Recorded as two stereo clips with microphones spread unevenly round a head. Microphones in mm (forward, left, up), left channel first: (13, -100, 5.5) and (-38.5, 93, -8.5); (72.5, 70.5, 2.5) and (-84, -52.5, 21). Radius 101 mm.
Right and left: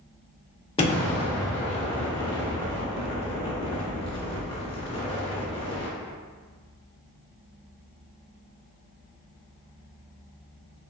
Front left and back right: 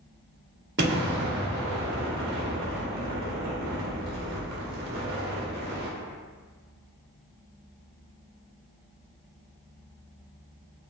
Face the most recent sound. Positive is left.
turn(degrees=-130)